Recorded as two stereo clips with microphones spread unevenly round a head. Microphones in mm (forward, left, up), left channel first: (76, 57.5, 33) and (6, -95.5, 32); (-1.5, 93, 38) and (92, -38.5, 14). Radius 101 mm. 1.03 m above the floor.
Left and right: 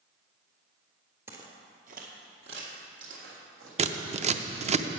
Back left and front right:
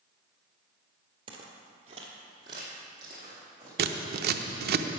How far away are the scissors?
About 0.6 m.